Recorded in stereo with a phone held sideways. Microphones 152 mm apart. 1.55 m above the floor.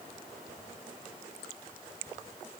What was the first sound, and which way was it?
Only background noise.